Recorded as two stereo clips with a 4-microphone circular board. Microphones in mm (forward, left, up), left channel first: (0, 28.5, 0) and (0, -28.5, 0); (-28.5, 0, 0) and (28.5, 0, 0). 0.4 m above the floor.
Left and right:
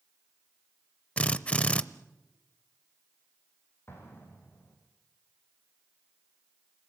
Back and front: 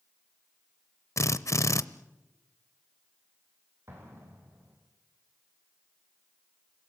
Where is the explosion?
45° left, 4.5 m.